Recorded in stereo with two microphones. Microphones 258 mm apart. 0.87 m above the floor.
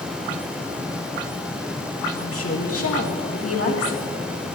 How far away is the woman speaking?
About 1.8 m.